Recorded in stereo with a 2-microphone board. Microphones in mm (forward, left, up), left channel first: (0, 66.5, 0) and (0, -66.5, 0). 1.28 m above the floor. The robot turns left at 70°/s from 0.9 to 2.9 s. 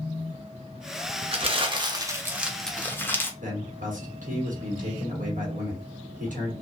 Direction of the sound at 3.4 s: 80° right.